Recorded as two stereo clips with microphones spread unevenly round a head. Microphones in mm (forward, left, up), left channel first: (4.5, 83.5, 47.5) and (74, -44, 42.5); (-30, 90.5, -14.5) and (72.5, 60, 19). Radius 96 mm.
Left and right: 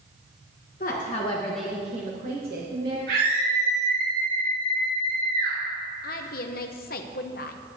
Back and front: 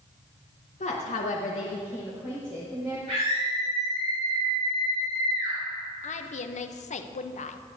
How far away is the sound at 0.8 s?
About 1.3 m.